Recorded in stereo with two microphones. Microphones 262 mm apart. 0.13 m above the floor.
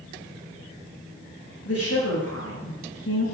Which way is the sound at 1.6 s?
60° left (ahead or behind).